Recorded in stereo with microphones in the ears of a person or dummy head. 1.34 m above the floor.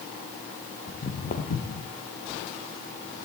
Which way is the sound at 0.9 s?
35° left (ahead or behind).